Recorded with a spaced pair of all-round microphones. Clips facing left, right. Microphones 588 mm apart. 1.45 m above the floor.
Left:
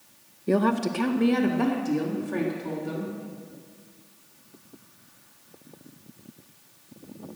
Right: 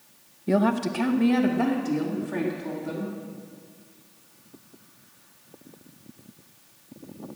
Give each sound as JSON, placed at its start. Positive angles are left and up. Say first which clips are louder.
{"t": 0.5, "sound": "a woman speaking", "louder": "even", "side_deg": -10, "distance_m": 0.6}